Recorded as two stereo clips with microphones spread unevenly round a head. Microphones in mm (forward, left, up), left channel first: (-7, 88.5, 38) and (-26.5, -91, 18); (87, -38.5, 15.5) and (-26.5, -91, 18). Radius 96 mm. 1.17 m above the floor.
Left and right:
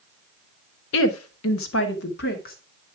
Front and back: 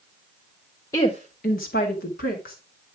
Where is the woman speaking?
100° left, 1.2 m; by 2.5 s 40° left, 2.5 m.